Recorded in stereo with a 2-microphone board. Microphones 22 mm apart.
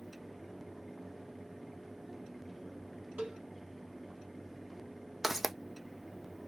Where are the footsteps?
10° right (ahead or behind), 0.6 m.